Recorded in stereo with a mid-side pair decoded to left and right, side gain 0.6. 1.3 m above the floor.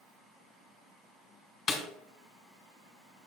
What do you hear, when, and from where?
1.7 s a snare drum: 35° left, 2.5 m